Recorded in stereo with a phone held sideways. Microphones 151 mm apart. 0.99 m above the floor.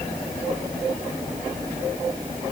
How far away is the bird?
No bird in this recording.